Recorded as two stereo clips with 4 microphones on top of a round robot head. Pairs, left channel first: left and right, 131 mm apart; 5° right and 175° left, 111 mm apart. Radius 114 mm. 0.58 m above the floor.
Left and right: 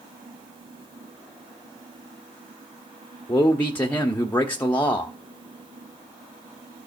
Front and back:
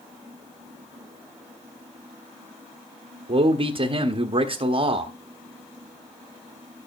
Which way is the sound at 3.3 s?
165° left.